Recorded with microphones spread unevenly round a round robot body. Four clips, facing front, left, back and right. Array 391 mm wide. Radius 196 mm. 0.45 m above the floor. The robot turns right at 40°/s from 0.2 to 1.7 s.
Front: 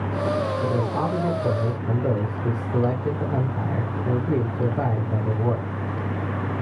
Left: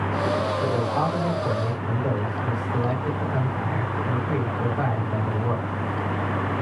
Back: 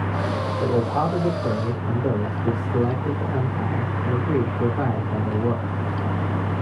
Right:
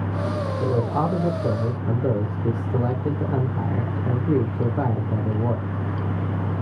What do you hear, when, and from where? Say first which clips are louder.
0.6 s a man speaking: even, back 2 dB; 120° right, 1.6 m; by 5.7 s 75° right, 1.6 m